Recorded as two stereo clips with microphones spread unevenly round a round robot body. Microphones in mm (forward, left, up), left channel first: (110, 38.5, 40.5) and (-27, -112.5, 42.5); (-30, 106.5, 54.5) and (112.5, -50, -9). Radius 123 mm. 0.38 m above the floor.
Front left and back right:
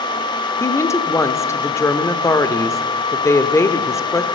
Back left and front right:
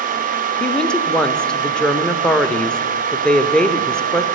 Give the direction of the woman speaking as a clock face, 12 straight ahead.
12 o'clock.